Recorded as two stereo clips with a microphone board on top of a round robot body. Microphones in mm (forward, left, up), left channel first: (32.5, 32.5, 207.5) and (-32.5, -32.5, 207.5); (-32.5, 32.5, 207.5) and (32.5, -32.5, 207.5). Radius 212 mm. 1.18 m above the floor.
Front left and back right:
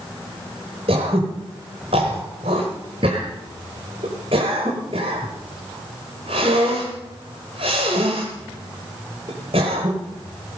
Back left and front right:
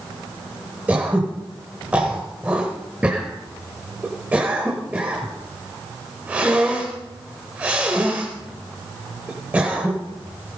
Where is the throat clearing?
120° right, 1.0 m.